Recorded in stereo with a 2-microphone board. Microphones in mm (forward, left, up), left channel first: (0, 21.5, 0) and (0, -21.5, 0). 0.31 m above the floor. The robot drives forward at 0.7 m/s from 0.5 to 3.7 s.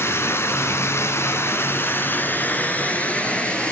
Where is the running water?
70° left (ahead or behind), 1.1 m; by 3.7 s 30° left (ahead or behind), 2 m.